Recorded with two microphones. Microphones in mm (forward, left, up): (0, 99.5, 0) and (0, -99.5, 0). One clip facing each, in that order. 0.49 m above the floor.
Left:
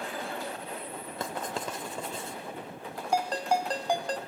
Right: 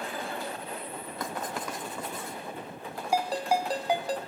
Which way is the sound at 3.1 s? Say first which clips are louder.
Right 1 dB; 5° right (ahead or behind).